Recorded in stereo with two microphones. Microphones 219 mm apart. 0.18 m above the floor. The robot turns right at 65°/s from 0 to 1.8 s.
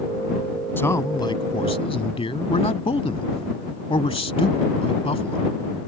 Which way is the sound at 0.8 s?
10° left (ahead or behind).